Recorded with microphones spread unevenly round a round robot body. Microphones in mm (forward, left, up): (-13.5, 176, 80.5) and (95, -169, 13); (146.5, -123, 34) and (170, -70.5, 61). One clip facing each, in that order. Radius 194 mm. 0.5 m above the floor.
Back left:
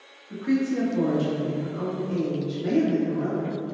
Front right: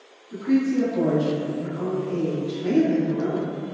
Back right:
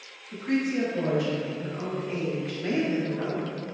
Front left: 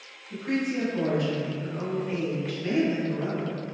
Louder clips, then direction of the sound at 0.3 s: Front right 3 dB, back right 1 dB; 100° left.